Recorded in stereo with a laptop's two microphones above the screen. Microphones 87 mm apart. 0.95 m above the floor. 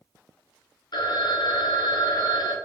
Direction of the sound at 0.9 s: 55° left (ahead or behind).